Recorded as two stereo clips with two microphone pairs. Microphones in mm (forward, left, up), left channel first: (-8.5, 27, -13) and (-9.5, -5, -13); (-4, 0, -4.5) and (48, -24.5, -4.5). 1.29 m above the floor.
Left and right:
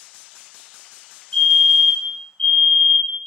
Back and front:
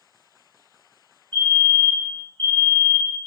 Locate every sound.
1.3 s a fire alarm: 130° left, 1.5 m